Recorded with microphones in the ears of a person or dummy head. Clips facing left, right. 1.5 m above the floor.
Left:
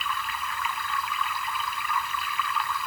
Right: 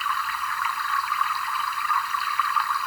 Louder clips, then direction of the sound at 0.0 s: Right 2 dB; 20° left (ahead or behind).